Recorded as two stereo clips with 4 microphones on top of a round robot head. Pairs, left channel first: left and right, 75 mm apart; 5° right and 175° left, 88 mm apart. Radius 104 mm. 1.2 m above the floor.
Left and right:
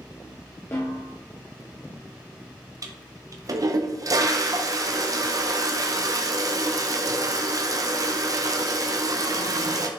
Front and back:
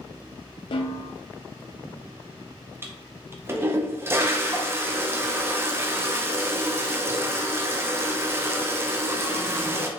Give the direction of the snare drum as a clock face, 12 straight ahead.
11 o'clock.